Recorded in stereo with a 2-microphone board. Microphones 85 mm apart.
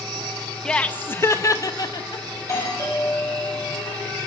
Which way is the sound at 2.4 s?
35° left (ahead or behind).